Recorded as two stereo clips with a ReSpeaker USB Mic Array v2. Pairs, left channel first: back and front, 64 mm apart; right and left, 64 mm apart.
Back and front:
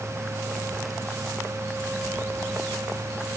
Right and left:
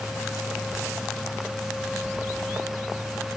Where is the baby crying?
I don't hear a baby crying.